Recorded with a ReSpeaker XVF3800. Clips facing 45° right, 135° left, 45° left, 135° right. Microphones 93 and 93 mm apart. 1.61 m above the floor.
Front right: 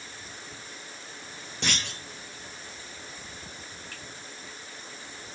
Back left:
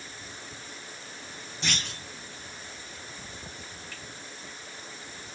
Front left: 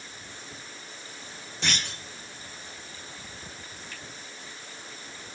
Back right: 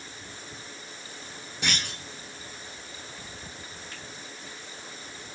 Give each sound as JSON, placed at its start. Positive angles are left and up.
{"t": 1.6, "sound": "a clunk", "azimuth_deg": -55, "distance_m": 2.0}
{"t": 3.9, "sound": "a finger snap", "azimuth_deg": -80, "distance_m": 4.0}